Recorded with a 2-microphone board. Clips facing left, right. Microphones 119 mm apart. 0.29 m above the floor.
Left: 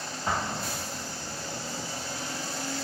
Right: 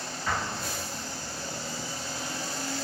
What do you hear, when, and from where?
0.3 s an explosion: 30° left (ahead or behind), 7 m